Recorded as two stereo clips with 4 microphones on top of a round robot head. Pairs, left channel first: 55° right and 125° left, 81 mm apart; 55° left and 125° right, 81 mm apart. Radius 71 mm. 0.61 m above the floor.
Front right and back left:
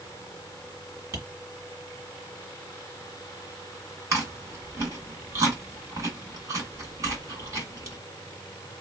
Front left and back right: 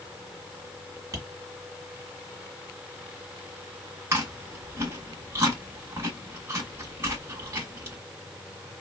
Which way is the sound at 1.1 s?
Straight behind.